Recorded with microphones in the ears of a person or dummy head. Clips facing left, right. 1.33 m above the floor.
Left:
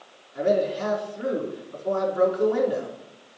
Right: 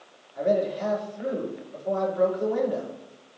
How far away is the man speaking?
About 4 m.